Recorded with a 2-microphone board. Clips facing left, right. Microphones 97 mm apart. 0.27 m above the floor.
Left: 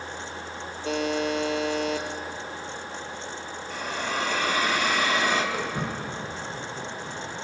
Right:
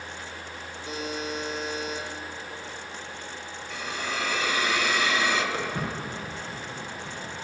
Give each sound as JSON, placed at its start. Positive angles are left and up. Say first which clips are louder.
{"t": 0.8, "sound": "a buzzer", "louder": "left 7 dB", "side_deg": 85, "distance_m": 1.0}
{"t": 3.7, "sound": "a hiss", "louder": "left 3 dB", "side_deg": 50, "distance_m": 1.1}
{"t": 5.5, "sound": "footsteps", "louder": "left 1 dB", "side_deg": 10, "distance_m": 5.0}